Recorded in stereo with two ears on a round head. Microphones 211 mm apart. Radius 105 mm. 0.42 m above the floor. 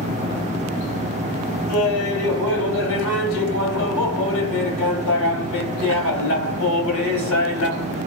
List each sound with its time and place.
1.7 s laughter: 60° left (ahead or behind), 2.5 m